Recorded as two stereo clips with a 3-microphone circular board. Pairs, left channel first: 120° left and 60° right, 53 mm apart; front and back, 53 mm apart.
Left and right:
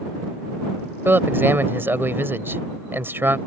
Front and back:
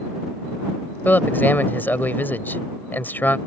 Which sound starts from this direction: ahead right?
A man speaking, at 1.1 s.